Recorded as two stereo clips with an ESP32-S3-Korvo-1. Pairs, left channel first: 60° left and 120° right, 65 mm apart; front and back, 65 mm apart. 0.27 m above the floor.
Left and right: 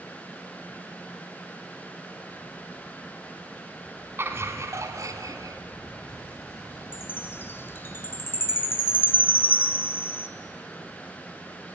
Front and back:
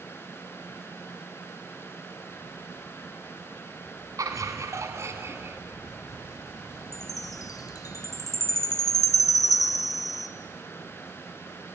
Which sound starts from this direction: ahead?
A chime, at 6.9 s.